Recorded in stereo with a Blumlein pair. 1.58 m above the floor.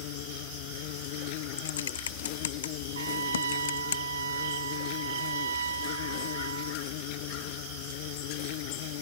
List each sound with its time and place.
0.0 s an insect: 45° left
1.6 s typing on a keyboard: 65° left
3.0 s a trumpet: 70° right